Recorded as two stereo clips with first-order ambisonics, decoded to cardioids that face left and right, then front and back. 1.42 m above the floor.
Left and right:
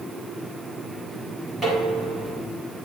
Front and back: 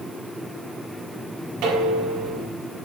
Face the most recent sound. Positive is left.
turn(degrees=-155)